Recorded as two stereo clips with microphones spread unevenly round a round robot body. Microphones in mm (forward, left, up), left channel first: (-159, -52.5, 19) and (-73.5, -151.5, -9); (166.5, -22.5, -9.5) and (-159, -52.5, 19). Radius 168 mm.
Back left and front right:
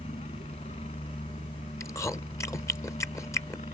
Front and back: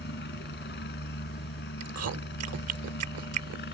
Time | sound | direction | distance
0.0 | a helicopter | 65° left | ?
1.8 | chewing | 155° right | ?